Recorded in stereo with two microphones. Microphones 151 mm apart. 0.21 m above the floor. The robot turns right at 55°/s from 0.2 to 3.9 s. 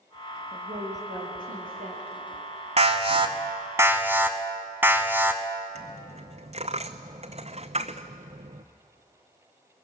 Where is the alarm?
80° right, 1.1 m; by 5.4 s 20° right, 1.1 m.